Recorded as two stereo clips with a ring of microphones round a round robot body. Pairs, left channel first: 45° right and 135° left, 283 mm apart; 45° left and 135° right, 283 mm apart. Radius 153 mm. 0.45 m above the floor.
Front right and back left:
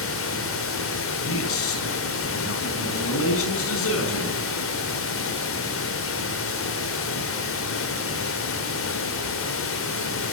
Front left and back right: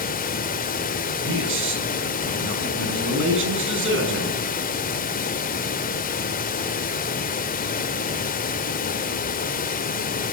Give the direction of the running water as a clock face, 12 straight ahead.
12 o'clock.